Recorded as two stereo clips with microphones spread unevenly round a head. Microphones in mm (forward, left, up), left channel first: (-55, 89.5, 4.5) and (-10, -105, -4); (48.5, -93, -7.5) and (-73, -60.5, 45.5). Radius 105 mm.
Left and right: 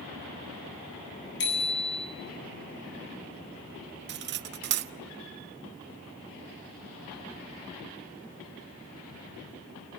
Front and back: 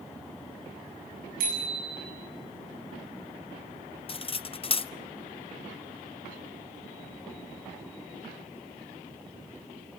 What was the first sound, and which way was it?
A bicycle bell, 135° left.